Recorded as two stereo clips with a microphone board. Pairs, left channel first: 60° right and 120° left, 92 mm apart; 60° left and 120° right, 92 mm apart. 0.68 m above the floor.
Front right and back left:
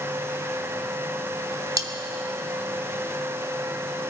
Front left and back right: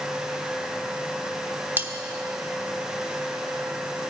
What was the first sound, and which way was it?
Cutlery clinking, 170° left.